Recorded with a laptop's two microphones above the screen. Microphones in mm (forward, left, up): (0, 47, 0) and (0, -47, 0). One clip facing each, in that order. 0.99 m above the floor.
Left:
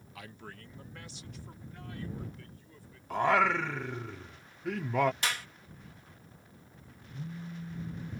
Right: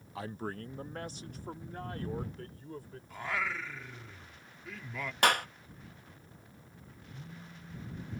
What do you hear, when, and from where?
0.1 s a man speaking: 30° right (ahead or behind); by 3.0 s 45° right (ahead or behind)
3.1 s singing: 65° left (ahead or behind)
5.2 s a clap: 55° right (ahead or behind)
7.1 s a phone buzzing: 35° left (ahead or behind)